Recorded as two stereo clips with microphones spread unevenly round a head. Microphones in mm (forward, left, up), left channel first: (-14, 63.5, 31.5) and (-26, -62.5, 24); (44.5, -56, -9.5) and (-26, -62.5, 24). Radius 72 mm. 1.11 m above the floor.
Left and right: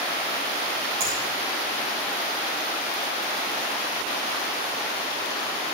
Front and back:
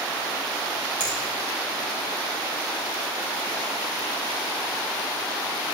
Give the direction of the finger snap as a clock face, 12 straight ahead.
4 o'clock.